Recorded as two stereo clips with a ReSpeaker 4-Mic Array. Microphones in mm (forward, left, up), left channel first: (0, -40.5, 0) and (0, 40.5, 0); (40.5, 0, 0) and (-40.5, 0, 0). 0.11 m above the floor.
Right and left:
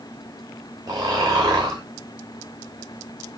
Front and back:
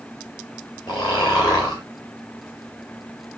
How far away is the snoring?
About 3 m.